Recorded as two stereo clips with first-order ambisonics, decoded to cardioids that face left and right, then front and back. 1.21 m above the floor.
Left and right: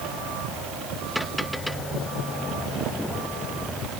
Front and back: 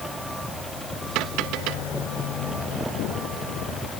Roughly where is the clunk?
No clunk in this recording.